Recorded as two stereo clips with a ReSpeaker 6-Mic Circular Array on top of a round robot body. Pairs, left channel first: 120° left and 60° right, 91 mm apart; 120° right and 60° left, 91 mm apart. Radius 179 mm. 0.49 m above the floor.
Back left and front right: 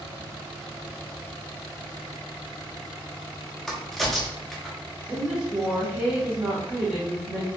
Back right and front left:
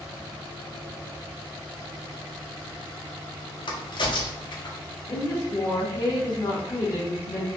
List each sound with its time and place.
3.7 s a crack: 155° right, 0.7 m
5.1 s a woman speaking: 130° right, 1.0 m